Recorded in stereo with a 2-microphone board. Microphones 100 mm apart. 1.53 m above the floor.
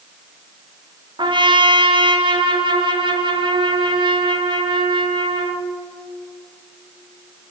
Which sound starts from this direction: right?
A trumpet, at 1.2 s.